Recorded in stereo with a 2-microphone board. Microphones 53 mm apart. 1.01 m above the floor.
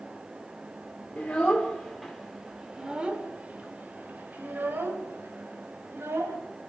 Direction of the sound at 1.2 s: 25° left (ahead or behind).